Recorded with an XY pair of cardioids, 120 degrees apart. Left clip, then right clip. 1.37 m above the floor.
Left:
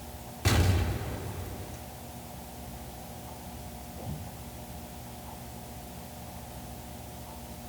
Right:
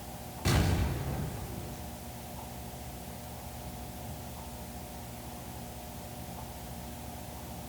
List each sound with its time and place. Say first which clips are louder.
0.5 s an explosion: left 2 dB; 30° left, 4.5 m